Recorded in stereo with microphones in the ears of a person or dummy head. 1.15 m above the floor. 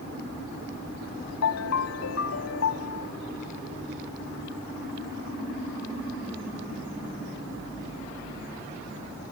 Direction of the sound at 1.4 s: 70° left (ahead or behind).